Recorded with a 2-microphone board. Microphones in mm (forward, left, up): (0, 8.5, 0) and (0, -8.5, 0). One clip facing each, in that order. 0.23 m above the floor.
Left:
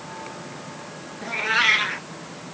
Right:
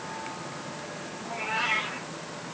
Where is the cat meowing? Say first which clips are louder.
Left 9 dB; 70° left (ahead or behind), 2 m.